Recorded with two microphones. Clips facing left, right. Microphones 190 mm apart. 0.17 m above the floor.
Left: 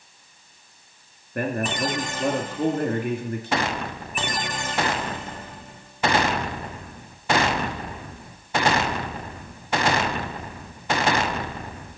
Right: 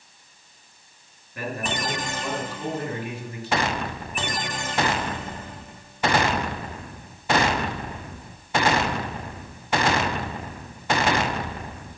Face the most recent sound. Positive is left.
turn(degrees=55)  # may be behind; listen again after turning